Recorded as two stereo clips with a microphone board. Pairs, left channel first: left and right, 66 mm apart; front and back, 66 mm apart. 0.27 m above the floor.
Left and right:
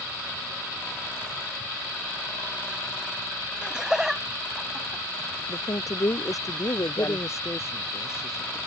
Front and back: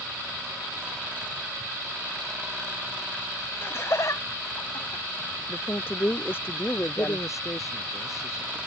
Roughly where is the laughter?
Ahead.